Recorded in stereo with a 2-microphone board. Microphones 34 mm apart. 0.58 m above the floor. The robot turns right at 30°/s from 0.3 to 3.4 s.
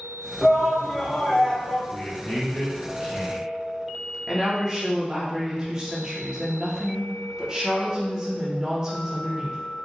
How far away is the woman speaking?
About 1.2 m.